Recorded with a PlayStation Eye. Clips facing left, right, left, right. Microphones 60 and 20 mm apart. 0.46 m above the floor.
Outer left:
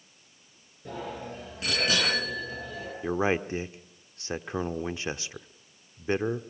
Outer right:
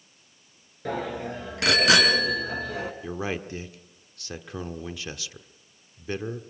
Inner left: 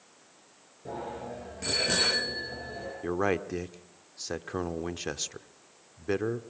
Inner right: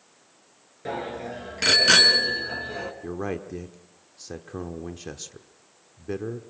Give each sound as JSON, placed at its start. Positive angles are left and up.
{"t": 0.8, "sound": "a bicycle bell", "side_deg": -80, "distance_m": 5.0}
{"t": 3.0, "sound": "a man speaking", "side_deg": 30, "distance_m": 0.9}